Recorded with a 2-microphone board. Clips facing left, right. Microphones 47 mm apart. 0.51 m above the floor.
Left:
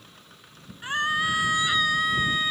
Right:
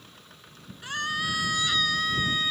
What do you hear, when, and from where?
0.8 s a scream: 25° left (ahead or behind); by 2.5 s 15° left (ahead or behind)